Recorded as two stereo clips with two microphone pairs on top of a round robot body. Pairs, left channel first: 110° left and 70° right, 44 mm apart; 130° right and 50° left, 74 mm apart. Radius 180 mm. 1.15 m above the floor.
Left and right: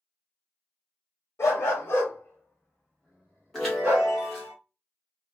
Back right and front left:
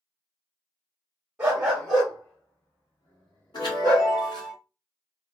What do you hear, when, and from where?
1.4 s a dog barking: 130° left, 1.1 m; by 4.1 s 105° right, 0.9 m
3.5 s a chime: 160° right, 0.7 m